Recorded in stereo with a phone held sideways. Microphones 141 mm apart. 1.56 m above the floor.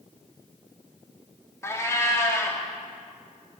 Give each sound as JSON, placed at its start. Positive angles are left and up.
{"t": 1.6, "sound": "a cat meowing", "side_deg": 20, "distance_m": 1.3}